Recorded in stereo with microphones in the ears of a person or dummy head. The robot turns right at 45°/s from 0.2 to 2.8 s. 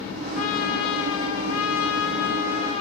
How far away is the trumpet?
About 1.2 m.